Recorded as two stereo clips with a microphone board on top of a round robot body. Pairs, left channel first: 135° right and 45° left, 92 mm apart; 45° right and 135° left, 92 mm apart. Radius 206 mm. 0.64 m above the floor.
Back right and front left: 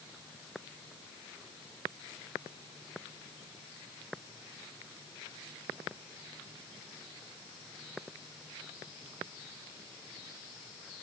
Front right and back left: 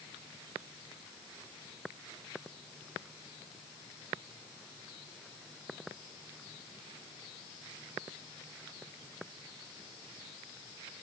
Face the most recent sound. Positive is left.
No sound to turn to.